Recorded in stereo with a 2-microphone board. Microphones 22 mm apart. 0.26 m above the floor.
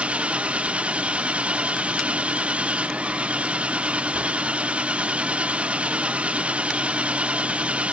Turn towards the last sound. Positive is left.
turn(degrees=-65)  # may be behind; listen again after turning